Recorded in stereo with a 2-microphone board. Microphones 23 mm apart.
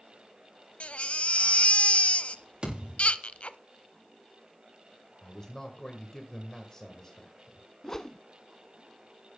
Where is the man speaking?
25° left (ahead or behind), 1.8 m.